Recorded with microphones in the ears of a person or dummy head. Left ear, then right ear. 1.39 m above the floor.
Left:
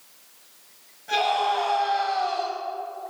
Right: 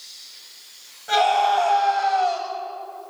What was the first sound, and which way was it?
A scream, 40° right (ahead or behind).